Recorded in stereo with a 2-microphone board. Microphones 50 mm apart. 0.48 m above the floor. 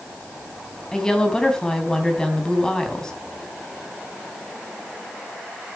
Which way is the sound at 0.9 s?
15° left (ahead or behind).